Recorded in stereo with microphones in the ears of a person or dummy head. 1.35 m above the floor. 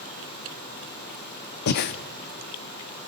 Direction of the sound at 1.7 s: 45° left (ahead or behind).